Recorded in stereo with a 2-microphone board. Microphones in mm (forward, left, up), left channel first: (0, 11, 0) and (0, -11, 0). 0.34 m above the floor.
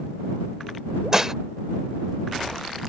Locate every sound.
1.1 s dishes clattering: 20° right (ahead or behind)